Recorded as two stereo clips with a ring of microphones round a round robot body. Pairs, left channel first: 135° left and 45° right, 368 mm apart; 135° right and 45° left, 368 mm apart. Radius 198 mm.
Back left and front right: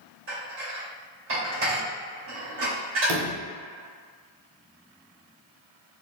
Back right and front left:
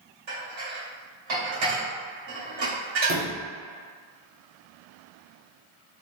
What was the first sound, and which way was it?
Dishes clattering, 15° left.